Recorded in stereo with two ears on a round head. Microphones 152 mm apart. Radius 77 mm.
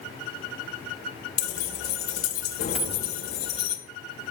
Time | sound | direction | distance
1.4 | keys jangling | 60° left (ahead or behind) | 1.5 m
2.8 | a dropped coin | 5° right (ahead or behind) | 0.6 m